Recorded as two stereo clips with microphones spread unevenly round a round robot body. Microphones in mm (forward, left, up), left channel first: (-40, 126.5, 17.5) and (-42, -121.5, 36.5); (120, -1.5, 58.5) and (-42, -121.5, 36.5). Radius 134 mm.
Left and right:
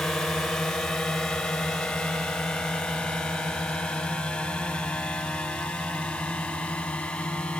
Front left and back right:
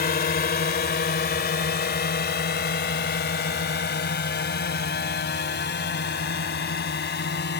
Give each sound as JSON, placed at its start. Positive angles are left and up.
{"t": 0.0, "sound": "a drone", "azimuth_deg": 5}